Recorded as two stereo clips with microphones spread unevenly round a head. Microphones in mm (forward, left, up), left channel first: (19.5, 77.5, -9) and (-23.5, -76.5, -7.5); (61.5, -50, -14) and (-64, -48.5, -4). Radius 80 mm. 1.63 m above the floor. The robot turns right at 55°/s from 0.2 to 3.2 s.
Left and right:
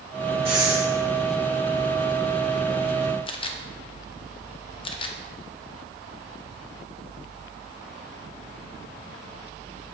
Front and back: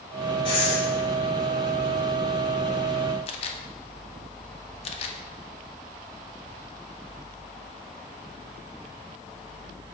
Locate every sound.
0.5 s breathing: 50° right, 3 m; by 0.9 s 25° right, 3 m
3.3 s a camera shutter: 30° left, 0.7 m